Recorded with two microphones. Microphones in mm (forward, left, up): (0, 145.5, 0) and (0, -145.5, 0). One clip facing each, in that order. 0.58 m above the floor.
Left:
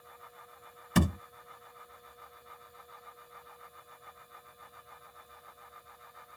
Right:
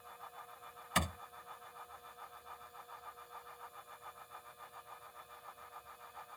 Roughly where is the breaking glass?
No breaking glass in this recording.